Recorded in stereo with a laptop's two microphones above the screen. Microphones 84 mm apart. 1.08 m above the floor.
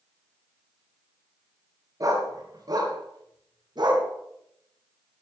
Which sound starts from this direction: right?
A dog barking, at 2.0 s.